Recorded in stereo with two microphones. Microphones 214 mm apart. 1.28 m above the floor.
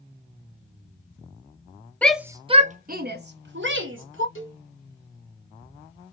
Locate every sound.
2.0 s a shout: 5° left (ahead or behind), 0.6 m; by 4.2 s 65° right (ahead or behind), 1.6 m
4.3 s a cowbell: 75° left (ahead or behind), 1.5 m